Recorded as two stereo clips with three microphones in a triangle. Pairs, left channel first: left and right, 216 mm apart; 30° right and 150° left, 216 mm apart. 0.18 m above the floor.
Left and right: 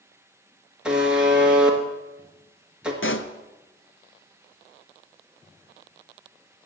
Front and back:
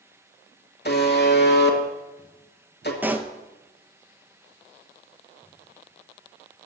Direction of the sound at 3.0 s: 70° left.